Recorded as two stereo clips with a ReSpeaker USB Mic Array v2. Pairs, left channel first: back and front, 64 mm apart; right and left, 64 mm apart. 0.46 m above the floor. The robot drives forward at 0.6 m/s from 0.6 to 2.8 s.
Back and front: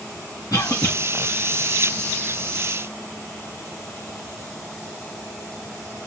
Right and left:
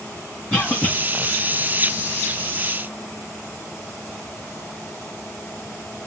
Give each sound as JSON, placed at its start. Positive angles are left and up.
{"t": 0.5, "sound": "a cough", "azimuth_deg": -165, "distance_m": 2.5}